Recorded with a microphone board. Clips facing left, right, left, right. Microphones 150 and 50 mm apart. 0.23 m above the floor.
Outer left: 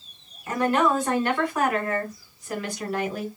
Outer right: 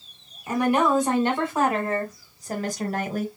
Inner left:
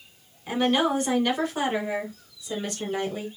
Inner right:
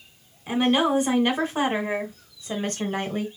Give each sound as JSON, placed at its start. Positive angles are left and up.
{"t": 0.5, "sound": "a woman speaking", "side_deg": -15, "distance_m": 2.0}